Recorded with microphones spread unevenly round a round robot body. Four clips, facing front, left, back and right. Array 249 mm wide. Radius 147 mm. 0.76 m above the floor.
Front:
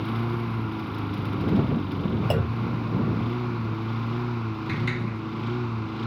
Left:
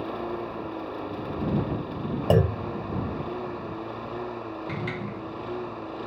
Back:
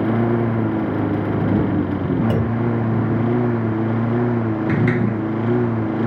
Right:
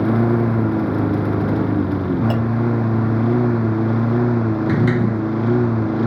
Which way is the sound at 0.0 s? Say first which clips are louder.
Right 14 dB, back 11 dB; 130° right.